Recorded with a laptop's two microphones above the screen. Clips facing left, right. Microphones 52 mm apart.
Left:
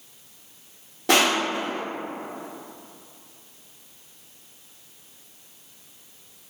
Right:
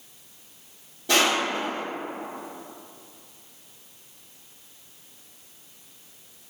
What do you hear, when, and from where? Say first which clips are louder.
1.1 s crushing: left 2 dB; 70° left (ahead or behind), 0.8 m